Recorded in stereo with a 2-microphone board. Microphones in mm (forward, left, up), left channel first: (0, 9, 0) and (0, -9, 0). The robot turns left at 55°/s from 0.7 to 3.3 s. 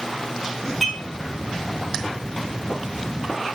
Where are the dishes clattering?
5° left (ahead or behind), 2.5 m; by 1.0 s 5° right (ahead or behind), 2.5 m.